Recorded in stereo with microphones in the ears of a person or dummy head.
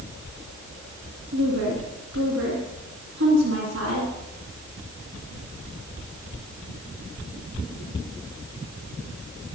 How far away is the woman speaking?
About 2.5 m.